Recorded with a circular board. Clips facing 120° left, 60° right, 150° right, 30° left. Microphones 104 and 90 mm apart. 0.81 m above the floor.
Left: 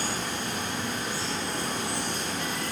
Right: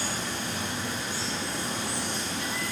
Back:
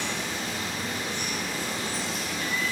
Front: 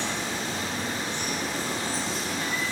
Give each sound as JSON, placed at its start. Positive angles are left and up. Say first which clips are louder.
{"t": 0.0, "sound": "running water", "louder": "left 1 dB, front 1 dB", "azimuth_deg": 85, "distance_m": 1.3}